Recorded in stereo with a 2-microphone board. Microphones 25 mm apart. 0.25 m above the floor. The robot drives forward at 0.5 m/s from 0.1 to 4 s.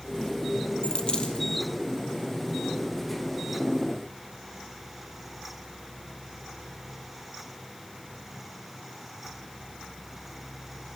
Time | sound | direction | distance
0.8 | a dropped coin | 35° left (ahead or behind) | 2.5 m